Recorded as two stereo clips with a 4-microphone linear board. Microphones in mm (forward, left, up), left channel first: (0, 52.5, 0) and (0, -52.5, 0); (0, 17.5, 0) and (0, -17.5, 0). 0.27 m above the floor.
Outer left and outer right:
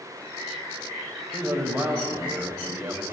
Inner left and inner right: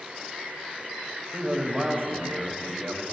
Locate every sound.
1.3 s a man speaking: 20° right (ahead or behind), 0.9 m